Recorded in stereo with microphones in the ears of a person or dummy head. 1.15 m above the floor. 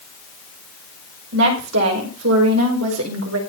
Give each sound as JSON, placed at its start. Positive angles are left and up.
{"t": 1.3, "sound": "a woman speaking", "side_deg": -60, "distance_m": 5.5}